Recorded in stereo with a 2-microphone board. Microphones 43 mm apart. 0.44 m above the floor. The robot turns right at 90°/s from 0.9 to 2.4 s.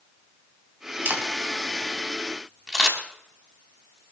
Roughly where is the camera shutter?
Right.